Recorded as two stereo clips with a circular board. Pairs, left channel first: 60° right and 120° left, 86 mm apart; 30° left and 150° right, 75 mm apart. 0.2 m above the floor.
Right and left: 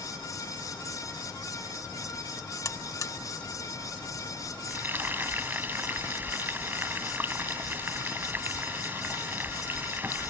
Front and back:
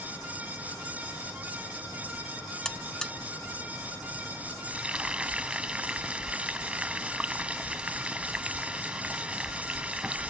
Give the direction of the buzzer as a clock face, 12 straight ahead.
2 o'clock.